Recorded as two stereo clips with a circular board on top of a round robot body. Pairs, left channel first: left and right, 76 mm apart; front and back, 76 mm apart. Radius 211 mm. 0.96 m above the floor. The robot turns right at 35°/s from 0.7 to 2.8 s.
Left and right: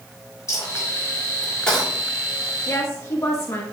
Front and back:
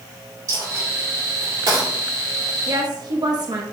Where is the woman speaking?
140° left, 1.0 m; by 3.6 s 145° left, 1.0 m.